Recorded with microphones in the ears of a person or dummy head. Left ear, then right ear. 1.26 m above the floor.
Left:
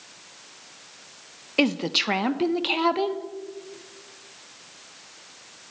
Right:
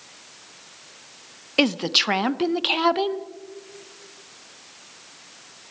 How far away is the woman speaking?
About 0.7 m.